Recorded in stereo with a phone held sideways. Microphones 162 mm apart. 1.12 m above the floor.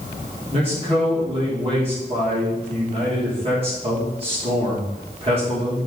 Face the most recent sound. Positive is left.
turn(degrees=-35)  # may be behind; listen again after turning